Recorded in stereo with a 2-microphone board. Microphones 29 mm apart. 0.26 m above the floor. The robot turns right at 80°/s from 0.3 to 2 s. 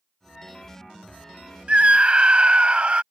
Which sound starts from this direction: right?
A scream, at 1.7 s.